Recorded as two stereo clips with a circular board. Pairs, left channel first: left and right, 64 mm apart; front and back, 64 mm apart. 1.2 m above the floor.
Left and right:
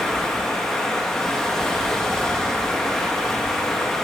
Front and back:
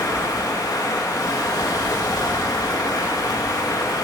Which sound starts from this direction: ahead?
Running water, at 0.0 s.